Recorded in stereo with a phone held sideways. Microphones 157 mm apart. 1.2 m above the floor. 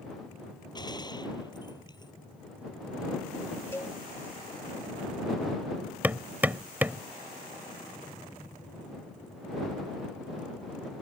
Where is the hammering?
10° right (ahead or behind).